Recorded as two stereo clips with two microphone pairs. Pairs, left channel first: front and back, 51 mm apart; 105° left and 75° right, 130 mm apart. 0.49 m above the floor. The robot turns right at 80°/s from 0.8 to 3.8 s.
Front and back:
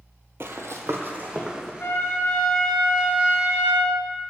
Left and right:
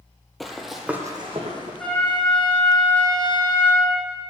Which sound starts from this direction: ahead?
A trumpet, at 1.8 s.